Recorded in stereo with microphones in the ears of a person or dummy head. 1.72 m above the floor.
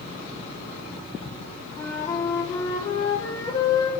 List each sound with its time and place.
1.8 s a flute: 20° left (ahead or behind), 1.1 m